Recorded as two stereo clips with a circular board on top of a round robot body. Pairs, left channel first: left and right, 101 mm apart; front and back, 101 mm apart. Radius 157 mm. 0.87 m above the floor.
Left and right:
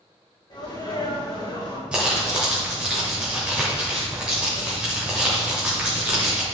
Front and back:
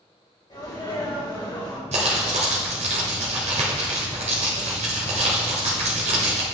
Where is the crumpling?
170° right, 0.9 m.